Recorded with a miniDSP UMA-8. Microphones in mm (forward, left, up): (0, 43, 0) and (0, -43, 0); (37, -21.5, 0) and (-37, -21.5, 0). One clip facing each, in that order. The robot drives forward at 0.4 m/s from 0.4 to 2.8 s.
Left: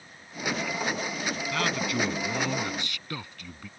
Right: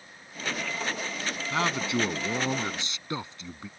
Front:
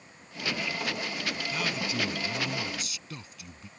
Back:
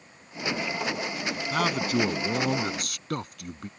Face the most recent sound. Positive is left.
turn(degrees=-155)